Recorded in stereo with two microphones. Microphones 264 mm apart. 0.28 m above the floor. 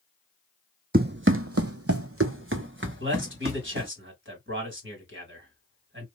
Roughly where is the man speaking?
Right.